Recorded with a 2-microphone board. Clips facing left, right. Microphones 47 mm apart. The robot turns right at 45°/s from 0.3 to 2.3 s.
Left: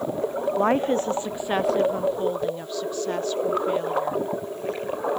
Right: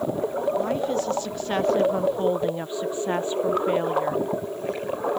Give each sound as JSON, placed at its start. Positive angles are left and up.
{"t": 0.6, "sound": "a woman speaking", "azimuth_deg": 125}